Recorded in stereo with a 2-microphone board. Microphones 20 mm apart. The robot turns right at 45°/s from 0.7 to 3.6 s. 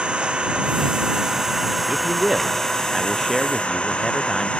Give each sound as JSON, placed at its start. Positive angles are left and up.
{"t": 0.0, "sound": "an engine running", "azimuth_deg": -65}
{"t": 1.9, "sound": "a man speaking", "azimuth_deg": -65}